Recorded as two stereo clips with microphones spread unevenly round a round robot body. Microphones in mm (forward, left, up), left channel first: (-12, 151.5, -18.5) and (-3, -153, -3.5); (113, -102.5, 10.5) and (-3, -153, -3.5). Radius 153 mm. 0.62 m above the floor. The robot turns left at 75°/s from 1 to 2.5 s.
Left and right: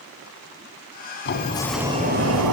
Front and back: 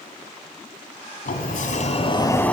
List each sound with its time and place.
1.2 s a sliding door: 40° left, 2.5 m; by 2.5 s 55° right, 2.5 m